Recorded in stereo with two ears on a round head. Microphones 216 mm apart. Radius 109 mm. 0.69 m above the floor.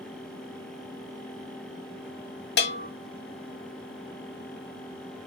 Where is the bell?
45° left (ahead or behind), 0.8 m.